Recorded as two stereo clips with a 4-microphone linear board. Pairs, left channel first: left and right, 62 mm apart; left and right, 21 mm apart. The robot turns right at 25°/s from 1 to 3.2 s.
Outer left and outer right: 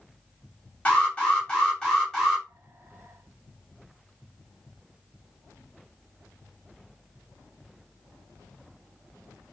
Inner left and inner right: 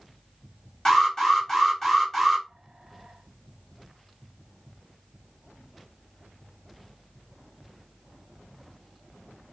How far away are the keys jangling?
No keys jangling in this recording.